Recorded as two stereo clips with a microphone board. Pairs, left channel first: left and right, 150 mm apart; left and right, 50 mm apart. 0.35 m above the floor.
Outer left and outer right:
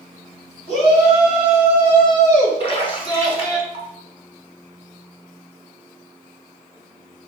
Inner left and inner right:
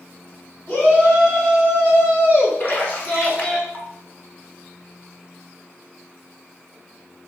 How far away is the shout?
About 2.5 m.